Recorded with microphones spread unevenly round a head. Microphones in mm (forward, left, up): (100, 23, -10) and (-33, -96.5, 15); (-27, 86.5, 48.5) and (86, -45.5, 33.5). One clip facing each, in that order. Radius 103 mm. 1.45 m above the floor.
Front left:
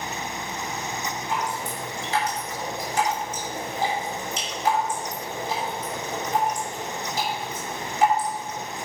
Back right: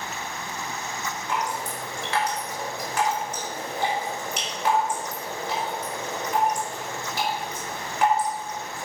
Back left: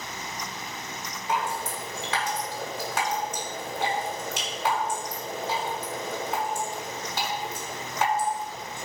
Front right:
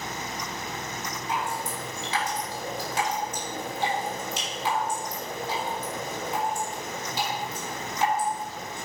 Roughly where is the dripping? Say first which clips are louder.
Back right 1 dB, back left 3 dB; behind.